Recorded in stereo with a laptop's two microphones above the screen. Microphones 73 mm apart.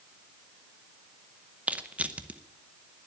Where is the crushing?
20° right (ahead or behind), 0.7 m.